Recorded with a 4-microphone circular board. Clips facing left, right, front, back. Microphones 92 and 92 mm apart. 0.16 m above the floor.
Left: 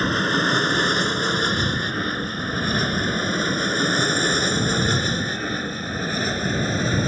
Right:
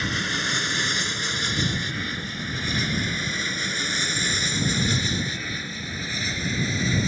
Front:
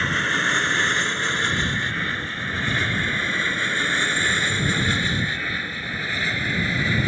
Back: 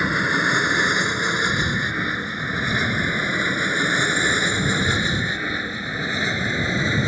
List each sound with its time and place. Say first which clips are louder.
0.0 s an aircraft: left 7 dB, back 2 dB; 110° left; by 7.1 s 115° left